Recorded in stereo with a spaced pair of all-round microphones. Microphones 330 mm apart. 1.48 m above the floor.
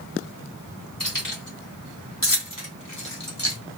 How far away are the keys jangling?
About 2.5 m.